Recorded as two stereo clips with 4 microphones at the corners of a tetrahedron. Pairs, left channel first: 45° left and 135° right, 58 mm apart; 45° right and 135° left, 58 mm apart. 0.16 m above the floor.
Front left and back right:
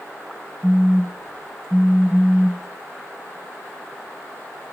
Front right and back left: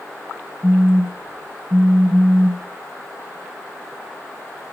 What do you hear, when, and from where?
0.6 s a phone buzzing: 140° left, 2.0 m